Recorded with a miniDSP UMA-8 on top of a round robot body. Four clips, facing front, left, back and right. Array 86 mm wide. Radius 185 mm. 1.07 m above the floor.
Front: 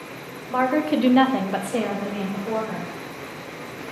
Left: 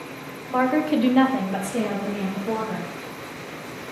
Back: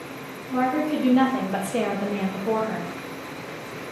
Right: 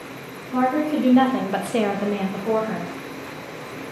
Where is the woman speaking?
45° left, 0.7 m; by 2.9 s 115° right, 1.0 m.